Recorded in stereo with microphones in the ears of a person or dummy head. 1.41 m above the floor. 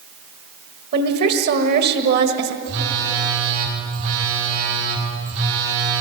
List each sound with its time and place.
0.9 s a woman speaking: 55° right (ahead or behind), 1.8 m
2.6 s a phone buzzing: 75° right (ahead or behind), 6 m